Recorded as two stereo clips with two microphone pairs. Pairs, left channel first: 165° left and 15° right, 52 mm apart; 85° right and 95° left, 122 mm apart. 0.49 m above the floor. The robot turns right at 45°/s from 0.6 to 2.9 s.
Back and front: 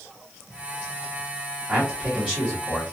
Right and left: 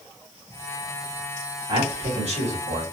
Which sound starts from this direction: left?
A man speaking, at 1.7 s.